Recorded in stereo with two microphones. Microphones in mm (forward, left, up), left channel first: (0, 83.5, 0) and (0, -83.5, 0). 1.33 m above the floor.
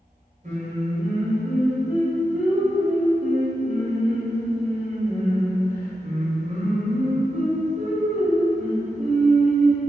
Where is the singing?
45° right (ahead or behind), 0.9 m.